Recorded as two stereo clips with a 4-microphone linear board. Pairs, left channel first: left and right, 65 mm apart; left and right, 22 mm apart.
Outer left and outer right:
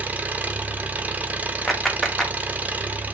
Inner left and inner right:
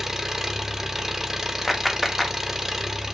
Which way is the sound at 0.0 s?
20° right (ahead or behind).